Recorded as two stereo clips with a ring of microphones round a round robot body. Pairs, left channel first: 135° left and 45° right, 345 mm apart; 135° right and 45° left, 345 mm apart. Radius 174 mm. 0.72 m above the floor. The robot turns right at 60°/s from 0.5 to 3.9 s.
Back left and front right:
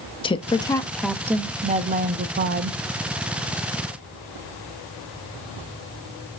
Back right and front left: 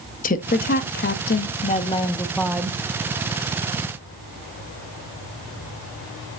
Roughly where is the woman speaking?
Behind.